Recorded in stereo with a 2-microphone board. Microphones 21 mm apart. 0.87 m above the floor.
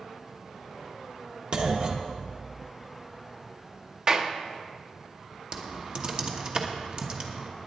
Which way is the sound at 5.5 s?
40° right (ahead or behind).